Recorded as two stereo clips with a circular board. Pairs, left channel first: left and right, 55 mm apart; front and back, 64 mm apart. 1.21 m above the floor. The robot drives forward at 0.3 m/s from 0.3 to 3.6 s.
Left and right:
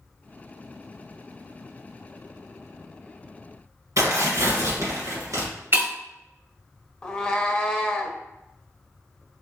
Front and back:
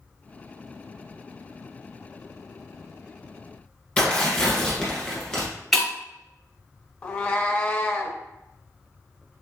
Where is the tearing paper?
80° right, 1.9 m.